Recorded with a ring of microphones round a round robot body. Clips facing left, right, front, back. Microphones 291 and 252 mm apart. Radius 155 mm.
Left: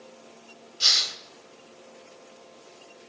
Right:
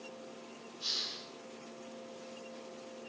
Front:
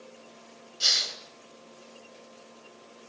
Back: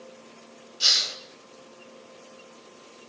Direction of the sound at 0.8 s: 95° left.